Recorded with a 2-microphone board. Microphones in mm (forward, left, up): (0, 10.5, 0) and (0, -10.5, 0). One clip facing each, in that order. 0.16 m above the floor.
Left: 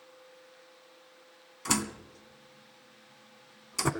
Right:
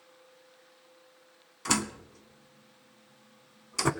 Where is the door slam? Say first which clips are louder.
Right 1 dB; 5° right (ahead or behind), 0.9 m.